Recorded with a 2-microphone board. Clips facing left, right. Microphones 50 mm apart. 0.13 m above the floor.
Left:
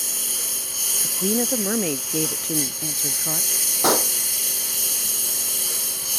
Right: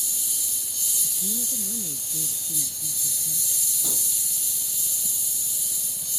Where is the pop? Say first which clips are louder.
Left 21 dB; 75° left (ahead or behind).